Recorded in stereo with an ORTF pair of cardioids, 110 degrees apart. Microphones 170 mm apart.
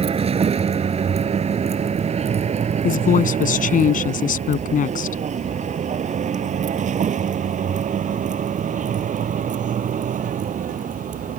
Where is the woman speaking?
50° left.